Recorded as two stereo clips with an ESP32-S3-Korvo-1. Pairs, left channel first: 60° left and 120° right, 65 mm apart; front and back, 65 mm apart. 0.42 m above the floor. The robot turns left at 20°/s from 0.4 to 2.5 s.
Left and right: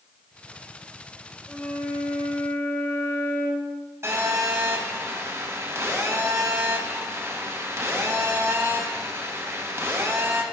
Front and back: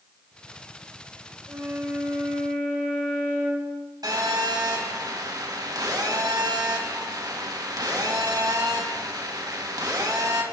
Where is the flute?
140° left, 6 m; by 3.7 s 115° left, 6 m.